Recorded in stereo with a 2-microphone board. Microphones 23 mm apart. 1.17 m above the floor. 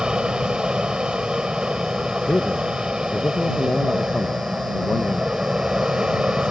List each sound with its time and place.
0.0 s an aircraft: 45° right (ahead or behind)
2.3 s a man speaking: 65° left (ahead or behind)